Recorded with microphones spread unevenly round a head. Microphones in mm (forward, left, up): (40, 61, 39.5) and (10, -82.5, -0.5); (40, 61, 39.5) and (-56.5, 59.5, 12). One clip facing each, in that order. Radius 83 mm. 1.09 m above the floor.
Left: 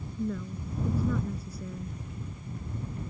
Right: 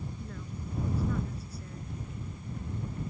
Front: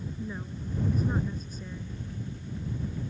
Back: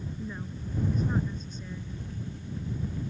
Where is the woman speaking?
85° left.